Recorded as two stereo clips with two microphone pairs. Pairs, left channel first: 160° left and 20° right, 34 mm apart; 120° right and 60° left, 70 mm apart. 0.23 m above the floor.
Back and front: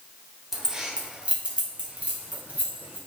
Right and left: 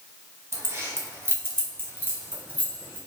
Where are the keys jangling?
45° left, 0.9 m; by 3.0 s straight ahead, 1.8 m.